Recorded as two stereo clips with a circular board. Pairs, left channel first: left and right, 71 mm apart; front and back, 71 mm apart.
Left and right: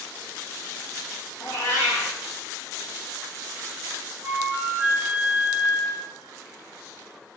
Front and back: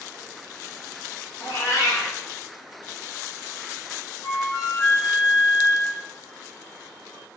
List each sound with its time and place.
1.4 s a cat meowing: 45° left, 1.4 m
4.2 s a flute: 35° right, 1.5 m